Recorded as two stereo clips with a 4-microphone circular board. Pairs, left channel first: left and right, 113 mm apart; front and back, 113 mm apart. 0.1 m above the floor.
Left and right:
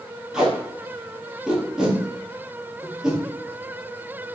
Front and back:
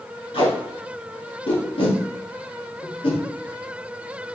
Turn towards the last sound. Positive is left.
turn(degrees=-10)